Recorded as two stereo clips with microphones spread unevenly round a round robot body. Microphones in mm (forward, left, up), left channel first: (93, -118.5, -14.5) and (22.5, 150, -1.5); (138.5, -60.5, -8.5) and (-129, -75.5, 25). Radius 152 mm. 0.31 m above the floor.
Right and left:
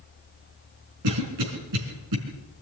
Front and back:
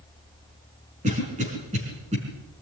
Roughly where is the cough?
Behind left.